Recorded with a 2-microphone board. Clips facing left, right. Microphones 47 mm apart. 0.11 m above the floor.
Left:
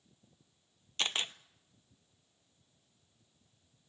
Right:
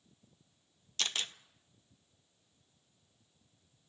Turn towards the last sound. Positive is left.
turn(degrees=20)  # may be behind; listen again after turning